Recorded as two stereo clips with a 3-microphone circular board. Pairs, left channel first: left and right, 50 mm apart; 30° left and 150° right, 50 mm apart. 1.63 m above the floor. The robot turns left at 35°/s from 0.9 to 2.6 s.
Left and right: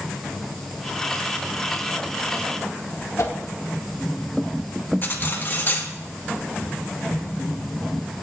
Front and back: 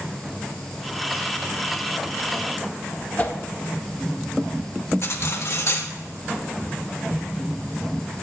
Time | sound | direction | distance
3.2 | a whoosh | 85° left | 1.9 m
5.0 | cutlery clinking | 50° left | 1.5 m